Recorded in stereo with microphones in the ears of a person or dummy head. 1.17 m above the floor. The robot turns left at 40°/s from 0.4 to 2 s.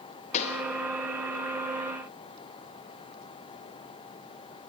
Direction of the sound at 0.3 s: 40° left (ahead or behind).